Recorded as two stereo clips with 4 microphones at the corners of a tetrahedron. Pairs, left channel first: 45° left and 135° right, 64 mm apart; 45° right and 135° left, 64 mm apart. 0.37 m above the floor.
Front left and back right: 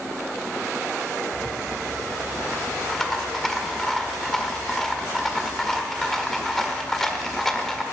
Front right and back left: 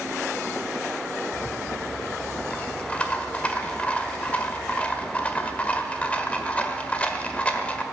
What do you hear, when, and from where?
1.3 s a rattle: 30° right, 1.3 m